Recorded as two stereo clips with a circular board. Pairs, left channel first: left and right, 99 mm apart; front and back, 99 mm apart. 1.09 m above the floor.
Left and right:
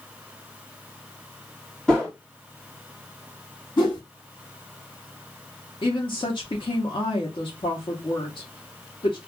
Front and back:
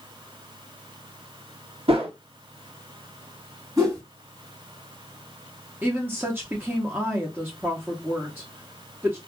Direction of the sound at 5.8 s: 110° left.